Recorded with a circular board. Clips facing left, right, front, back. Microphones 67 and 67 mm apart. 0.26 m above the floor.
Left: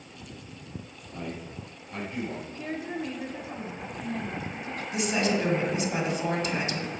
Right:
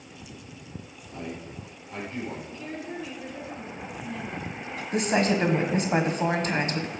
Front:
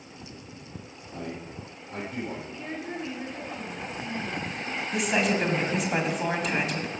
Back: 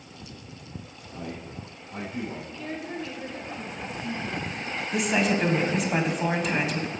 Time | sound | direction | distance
1.1 | a man speaking | 10° left | 4.5 m
2.5 | a woman speaking | 65° left | 1.5 m
4.9 | a woman speaking | 90° right | 1.3 m